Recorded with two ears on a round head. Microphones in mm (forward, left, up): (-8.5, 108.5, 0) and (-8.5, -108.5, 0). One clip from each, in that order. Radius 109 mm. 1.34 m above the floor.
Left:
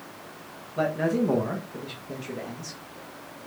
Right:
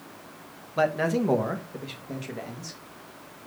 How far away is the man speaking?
About 1.1 m.